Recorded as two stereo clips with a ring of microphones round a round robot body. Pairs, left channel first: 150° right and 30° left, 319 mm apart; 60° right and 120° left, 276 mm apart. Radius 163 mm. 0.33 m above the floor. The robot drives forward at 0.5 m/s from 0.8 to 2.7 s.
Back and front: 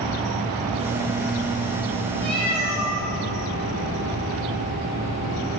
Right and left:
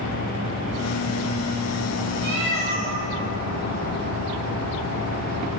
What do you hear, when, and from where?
2.2 s a cat meowing: 145° left, 10 m